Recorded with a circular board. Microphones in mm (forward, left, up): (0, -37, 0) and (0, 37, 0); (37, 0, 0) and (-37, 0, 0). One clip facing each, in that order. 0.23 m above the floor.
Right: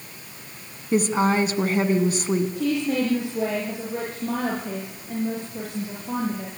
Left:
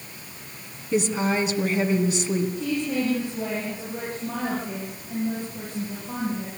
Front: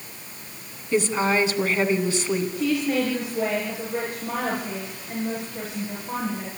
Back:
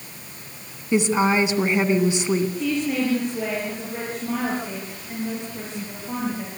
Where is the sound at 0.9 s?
115° right, 2.5 m.